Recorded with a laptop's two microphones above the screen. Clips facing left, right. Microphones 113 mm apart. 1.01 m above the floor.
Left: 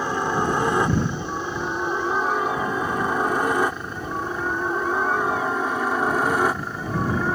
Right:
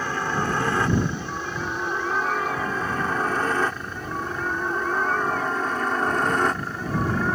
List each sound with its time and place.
0.0 s a helicopter: 20° left (ahead or behind); by 7.4 s 5° left (ahead or behind)